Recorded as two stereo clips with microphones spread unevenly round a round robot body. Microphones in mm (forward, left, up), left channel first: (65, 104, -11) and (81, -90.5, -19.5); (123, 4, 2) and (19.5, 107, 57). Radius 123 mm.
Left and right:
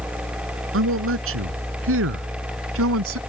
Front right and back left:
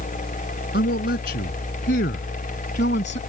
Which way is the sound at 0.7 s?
75° right.